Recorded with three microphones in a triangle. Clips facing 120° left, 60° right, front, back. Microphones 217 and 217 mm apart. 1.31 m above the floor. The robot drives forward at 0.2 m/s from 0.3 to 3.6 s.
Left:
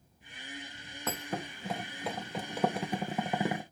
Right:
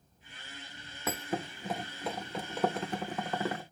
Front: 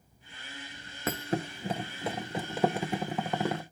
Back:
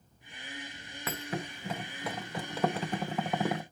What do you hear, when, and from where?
1.1 s a thud: 20° left, 0.7 m; by 3.6 s 105° left, 0.5 m